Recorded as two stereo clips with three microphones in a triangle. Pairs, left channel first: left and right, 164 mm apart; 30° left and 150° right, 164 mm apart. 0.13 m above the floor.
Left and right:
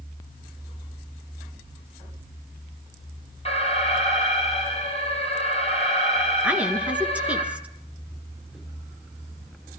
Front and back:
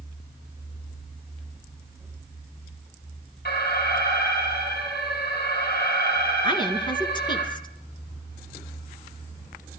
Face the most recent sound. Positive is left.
turn(degrees=-15)